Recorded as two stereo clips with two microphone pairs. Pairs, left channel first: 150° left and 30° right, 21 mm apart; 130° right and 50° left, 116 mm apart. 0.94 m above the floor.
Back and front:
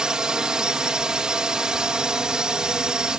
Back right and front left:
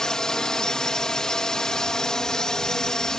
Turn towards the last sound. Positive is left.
turn(degrees=-50)